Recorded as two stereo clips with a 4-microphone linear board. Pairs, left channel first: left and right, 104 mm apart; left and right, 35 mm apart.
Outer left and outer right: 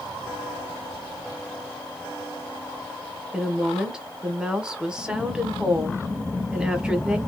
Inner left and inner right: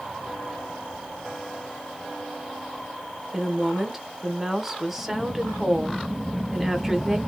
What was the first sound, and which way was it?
A woman speaking, 10° right (ahead or behind).